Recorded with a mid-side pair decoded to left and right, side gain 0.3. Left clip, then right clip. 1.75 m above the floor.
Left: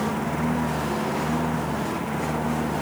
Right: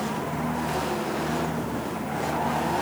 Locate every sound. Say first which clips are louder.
0.0 s a lawn mower: left 3 dB; 50° left